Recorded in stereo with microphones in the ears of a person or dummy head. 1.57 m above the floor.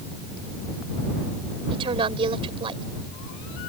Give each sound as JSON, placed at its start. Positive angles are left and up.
{"t": 1.7, "sound": "a woman speaking", "side_deg": -25}